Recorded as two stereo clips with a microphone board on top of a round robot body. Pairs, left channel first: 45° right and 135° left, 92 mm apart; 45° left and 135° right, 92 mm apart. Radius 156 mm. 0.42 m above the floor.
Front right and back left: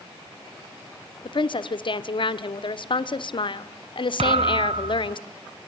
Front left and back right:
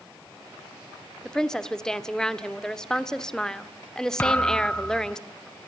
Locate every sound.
1.2 s a woman speaking: 40° right, 1.4 m
4.2 s a thud: 115° left, 0.5 m